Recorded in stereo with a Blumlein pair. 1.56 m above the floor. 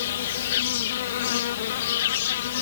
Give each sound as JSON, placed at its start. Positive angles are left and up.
{"t": 0.0, "sound": "an insect", "azimuth_deg": 55}